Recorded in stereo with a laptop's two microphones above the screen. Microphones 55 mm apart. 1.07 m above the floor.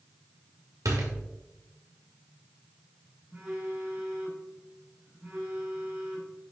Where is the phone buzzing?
40° right (ahead or behind), 3 m.